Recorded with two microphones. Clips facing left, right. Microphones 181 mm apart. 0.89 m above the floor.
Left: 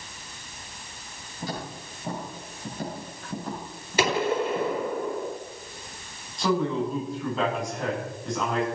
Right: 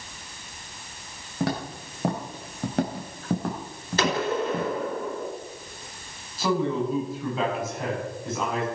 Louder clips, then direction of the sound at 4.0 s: Left 1 dB; 10° left (ahead or behind).